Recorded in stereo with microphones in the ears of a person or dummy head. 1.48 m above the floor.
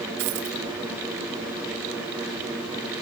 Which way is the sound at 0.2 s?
50° right (ahead or behind).